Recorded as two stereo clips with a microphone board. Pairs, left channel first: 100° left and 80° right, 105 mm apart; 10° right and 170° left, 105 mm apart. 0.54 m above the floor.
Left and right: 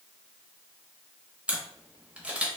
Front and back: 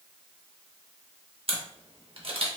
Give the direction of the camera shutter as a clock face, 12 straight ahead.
5 o'clock.